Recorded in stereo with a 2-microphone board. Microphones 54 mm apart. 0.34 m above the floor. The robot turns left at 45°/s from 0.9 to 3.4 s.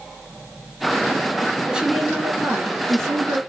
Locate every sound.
1.7 s a woman speaking: 10° right, 3.5 m; by 3.4 s 90° right, 3.5 m